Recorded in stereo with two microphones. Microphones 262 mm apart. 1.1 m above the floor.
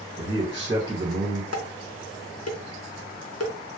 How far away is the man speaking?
About 1.1 m.